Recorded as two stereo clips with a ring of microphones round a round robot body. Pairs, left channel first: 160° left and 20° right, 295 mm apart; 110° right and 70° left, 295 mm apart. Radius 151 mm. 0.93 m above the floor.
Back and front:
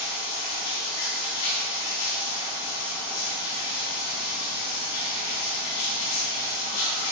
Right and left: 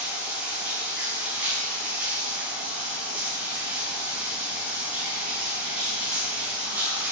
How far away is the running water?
About 6 m.